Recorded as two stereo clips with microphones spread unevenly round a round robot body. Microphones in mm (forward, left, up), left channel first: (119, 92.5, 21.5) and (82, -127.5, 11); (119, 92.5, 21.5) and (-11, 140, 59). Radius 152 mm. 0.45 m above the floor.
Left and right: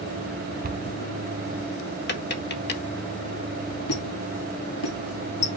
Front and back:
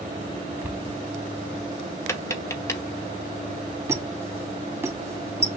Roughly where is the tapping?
Ahead left.